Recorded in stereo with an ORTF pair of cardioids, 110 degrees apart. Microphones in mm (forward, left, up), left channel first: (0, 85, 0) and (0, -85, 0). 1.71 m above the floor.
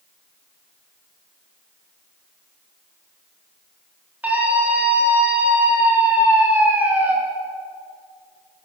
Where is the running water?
I don't hear running water.